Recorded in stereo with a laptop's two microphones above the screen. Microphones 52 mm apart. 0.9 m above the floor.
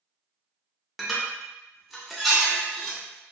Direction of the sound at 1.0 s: Centre (ahead or behind).